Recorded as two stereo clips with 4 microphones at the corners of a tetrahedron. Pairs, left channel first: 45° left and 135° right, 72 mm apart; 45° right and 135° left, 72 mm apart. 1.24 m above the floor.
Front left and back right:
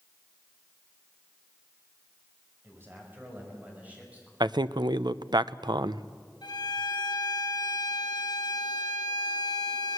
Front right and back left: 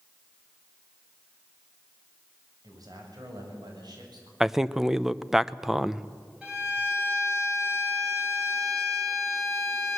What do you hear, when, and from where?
2.6 s a man speaking: 170° left, 6 m; by 4.3 s 150° left, 7.5 m
4.4 s a man speaking: 140° right, 0.6 m
6.4 s a violin: 60° left, 3.5 m